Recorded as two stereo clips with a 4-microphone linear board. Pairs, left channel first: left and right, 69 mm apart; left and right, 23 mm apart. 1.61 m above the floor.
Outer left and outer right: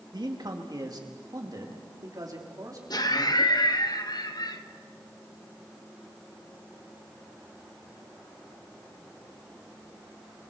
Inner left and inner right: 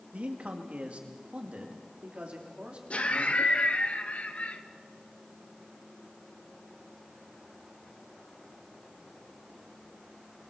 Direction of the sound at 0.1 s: 70° right (ahead or behind).